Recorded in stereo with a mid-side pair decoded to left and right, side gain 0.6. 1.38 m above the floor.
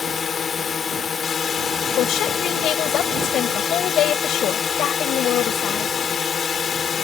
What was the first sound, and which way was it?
A drone, 40° left.